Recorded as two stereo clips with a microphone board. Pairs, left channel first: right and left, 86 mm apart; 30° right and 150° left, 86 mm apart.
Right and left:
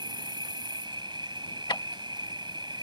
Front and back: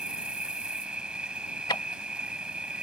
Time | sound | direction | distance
0.0 | an insect | 75° left | ?
1.7 | ticking | 60° right | ?